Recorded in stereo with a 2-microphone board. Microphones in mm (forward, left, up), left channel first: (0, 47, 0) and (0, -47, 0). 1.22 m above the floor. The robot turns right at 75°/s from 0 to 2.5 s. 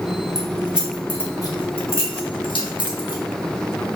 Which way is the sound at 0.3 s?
40° right (ahead or behind).